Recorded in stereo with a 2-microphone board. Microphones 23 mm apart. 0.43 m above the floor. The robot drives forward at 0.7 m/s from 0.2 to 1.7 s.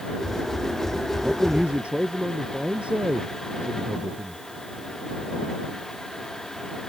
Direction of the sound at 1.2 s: 75° right (ahead or behind).